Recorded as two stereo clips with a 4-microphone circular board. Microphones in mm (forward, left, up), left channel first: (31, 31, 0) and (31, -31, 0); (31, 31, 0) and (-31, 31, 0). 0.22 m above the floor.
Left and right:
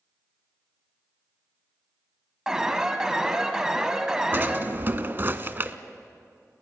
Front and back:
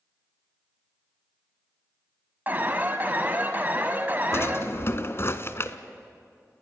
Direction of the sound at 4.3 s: 40° right.